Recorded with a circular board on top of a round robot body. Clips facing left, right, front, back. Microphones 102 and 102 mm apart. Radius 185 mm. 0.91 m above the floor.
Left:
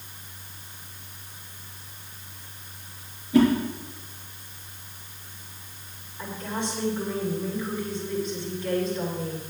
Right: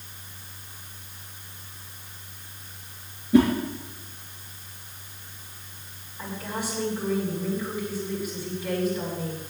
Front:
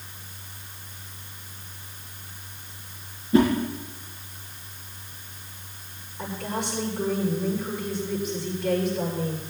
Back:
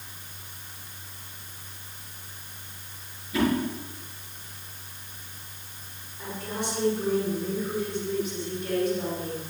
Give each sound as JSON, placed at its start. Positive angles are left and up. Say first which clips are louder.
{"t": 3.3, "sound": "a whoosh", "louder": "even, front 6 dB", "azimuth_deg": -50, "distance_m": 5.0}
{"t": 6.2, "sound": "a woman speaking", "louder": "left 1 dB, front 3 dB", "azimuth_deg": -10, "distance_m": 8.0}